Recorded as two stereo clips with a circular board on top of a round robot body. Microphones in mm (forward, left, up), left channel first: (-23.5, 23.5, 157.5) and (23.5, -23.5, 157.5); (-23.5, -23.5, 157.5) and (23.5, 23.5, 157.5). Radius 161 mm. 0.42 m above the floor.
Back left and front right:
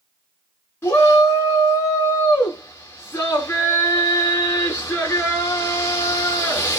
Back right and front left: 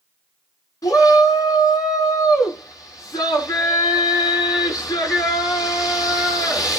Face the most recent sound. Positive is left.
turn(degrees=-170)